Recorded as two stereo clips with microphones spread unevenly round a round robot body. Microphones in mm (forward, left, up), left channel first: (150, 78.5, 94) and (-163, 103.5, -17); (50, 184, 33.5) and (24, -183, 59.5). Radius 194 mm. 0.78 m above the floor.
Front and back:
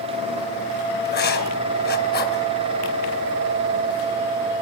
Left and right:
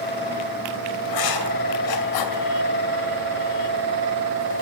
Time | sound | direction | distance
1.1 | writing | 55° left | 2.5 m